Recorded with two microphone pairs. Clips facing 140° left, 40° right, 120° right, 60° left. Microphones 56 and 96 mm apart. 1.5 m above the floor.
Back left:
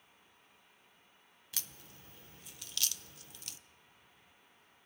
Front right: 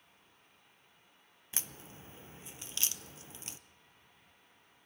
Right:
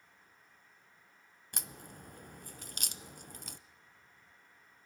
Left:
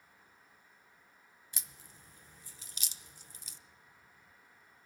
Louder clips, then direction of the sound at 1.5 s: Front right 3 dB, right 9 dB; 105° right.